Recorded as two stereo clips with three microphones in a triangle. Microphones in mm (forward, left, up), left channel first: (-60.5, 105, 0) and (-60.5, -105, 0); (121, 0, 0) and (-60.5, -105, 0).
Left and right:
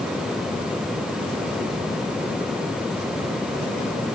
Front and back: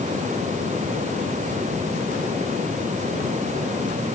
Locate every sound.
Only background noise.